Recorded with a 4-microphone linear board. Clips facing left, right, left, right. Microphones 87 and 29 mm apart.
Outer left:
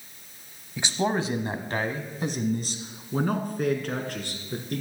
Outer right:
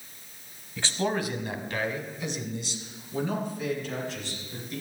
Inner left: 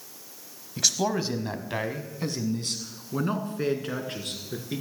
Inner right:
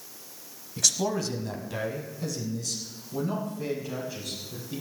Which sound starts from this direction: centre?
A man speaking, at 0.8 s.